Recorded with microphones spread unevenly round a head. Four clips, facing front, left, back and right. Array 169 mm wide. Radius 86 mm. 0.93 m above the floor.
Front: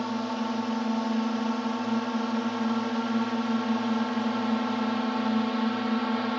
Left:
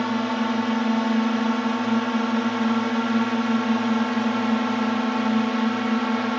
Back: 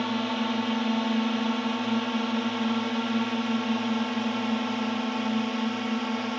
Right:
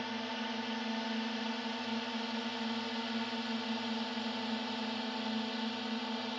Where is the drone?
95° left; by 6.4 s 80° left.